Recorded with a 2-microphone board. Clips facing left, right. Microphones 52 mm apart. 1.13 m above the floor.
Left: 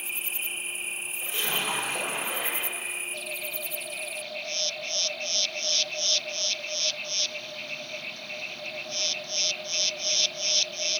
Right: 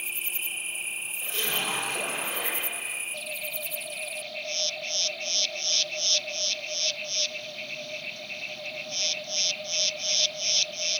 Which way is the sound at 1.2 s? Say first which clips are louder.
Left 1 dB; 10° left (ahead or behind).